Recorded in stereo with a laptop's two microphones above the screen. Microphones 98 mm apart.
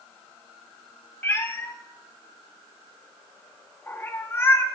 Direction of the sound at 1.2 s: 25° left (ahead or behind).